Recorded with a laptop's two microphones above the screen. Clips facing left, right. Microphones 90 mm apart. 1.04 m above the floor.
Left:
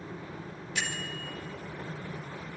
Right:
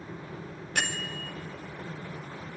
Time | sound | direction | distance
0.8 | a bell | 65° right (ahead or behind) | 2 m